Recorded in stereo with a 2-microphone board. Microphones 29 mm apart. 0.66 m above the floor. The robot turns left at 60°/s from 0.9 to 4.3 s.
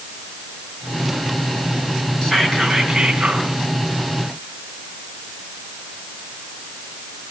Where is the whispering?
25° left, 6.5 m; by 3.5 s 55° right, 6.5 m.